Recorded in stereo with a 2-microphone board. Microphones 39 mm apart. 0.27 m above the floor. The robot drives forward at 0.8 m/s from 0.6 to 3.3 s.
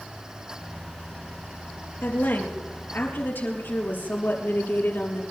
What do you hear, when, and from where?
2.0 s a woman speaking: 70° left (ahead or behind), 5 m; by 5.2 s 60° left (ahead or behind), 5.5 m